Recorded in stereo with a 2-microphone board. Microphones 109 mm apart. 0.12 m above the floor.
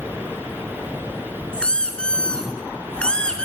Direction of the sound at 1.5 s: 10° left (ahead or behind).